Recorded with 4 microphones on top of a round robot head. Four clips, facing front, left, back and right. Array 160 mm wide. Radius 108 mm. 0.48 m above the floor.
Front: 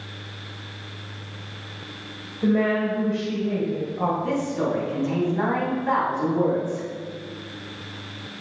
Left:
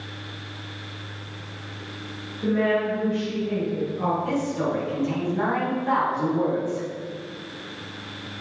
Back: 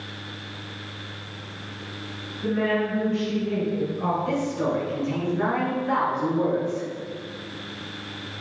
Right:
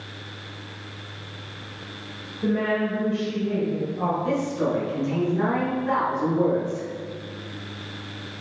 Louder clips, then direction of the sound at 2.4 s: Left 1 dB, front 3 dB; 10° right.